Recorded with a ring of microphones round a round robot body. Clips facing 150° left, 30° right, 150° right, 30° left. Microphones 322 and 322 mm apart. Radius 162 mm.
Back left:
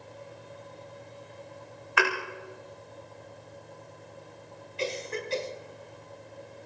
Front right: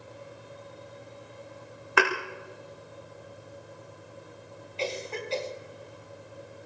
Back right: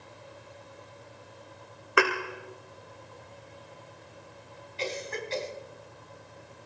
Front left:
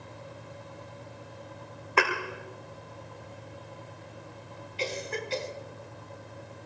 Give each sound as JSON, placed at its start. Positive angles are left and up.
{"t": 2.0, "sound": "a thud", "azimuth_deg": -75, "distance_m": 3.0}
{"t": 4.8, "sound": "a cough", "azimuth_deg": 80, "distance_m": 4.5}